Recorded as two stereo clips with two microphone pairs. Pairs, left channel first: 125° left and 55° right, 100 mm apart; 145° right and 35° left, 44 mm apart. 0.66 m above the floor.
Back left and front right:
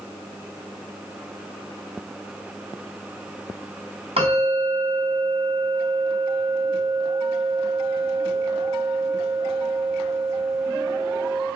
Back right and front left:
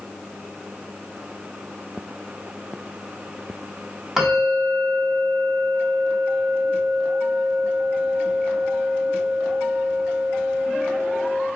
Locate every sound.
4.2 s a bell: 40° right, 4 m